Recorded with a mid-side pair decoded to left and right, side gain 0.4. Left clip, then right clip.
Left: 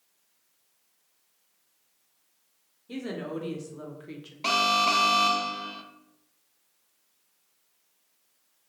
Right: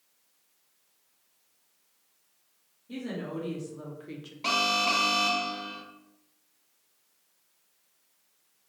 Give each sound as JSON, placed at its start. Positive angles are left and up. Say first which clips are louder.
{"t": 2.9, "sound": "a woman speaking", "louder": "left 2 dB", "azimuth_deg": 55, "distance_m": 1.3}
{"t": 4.4, "sound": "an alarm", "louder": "left 3 dB", "azimuth_deg": 30, "distance_m": 0.7}